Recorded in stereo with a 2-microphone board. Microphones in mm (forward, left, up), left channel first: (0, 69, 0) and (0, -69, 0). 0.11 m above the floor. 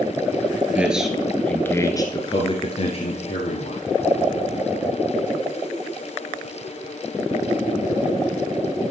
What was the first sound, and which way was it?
A man speaking, 10° right (ahead or behind).